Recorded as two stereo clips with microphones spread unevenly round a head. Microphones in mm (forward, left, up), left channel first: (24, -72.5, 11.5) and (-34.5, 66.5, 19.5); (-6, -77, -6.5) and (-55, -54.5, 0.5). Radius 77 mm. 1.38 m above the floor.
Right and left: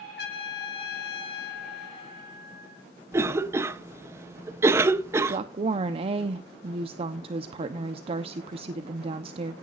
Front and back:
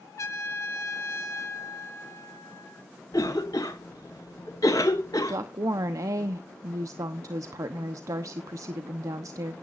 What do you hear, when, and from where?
0.2 s a trumpet: 45° right, 3 m
3.1 s a cough: 40° left, 0.8 m
5.3 s a woman speaking: 165° left, 0.9 m